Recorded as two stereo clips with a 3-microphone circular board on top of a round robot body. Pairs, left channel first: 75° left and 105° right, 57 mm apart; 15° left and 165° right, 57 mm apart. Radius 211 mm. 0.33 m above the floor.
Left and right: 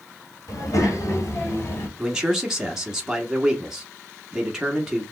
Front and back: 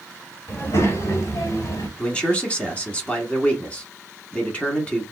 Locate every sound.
0.5 s a child speaking: 60° left, 1.9 m; by 1.9 s 35° left, 1.6 m
2.0 s a man speaking: 30° right, 1.5 m